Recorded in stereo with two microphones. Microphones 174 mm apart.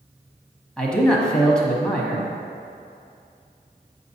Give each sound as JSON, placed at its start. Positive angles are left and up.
{"t": 0.8, "sound": "a man speaking", "side_deg": 5, "distance_m": 1.1}